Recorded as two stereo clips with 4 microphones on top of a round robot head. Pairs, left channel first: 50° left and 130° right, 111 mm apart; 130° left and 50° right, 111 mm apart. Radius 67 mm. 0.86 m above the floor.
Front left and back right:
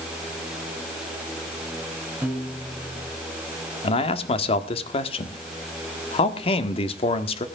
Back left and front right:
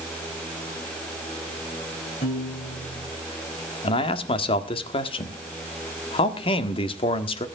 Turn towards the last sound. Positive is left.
turn(degrees=90)